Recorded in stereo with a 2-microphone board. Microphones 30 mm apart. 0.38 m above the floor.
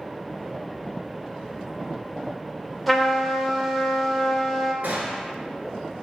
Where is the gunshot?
70° right (ahead or behind), 0.8 m.